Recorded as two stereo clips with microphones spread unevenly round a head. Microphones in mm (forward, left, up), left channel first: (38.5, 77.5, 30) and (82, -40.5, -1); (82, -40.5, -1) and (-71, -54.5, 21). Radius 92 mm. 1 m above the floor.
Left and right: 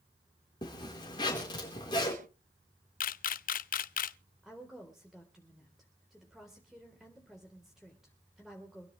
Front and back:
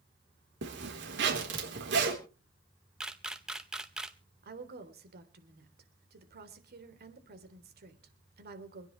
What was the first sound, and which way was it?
A zipper, straight behind.